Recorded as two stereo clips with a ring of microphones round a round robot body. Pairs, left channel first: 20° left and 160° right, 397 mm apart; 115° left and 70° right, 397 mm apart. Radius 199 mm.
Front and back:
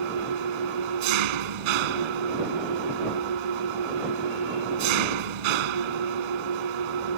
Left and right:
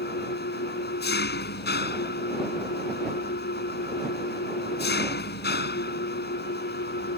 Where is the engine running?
Straight behind.